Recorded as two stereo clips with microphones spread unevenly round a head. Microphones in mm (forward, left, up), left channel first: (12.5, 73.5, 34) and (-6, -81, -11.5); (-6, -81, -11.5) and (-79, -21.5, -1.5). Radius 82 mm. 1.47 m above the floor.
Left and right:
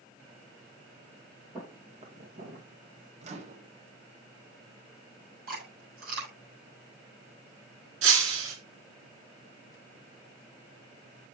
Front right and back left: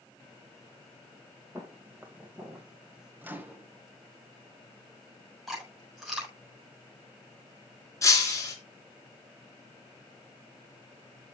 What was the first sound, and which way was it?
Footsteps, 170° right.